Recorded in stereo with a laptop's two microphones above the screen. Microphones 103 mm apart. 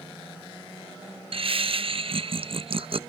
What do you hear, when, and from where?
1.3 s laughter: 60° right (ahead or behind), 0.6 m